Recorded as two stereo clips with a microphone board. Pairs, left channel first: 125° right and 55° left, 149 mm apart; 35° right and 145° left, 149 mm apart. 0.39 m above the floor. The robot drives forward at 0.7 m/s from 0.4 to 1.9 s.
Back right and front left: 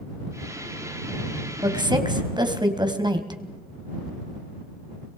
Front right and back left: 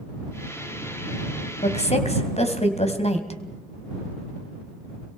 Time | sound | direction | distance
1.6 | a woman speaking | straight ahead | 2.5 m